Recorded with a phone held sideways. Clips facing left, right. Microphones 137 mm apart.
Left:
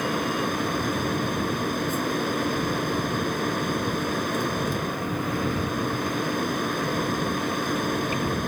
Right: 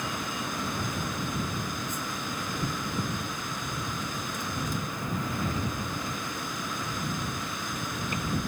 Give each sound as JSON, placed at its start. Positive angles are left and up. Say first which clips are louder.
{"t": 0.0, "sound": "a fan", "louder": "left 8 dB", "side_deg": 65}